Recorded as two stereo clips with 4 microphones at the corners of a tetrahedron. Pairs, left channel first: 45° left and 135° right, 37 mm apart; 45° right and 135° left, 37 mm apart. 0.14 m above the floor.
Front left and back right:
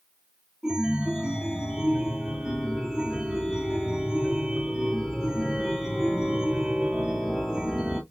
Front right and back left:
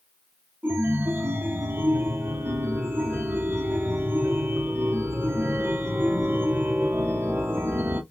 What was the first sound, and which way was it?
A chime, 150° left.